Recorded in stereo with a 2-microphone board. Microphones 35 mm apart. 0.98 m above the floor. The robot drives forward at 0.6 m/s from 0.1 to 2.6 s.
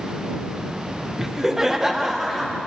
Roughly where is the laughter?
Centre.